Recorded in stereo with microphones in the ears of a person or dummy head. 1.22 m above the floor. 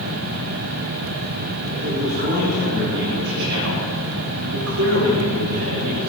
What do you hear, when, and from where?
1.7 s a man speaking: 35° right (ahead or behind), 3.5 m; by 6.1 s 70° right (ahead or behind), 6 m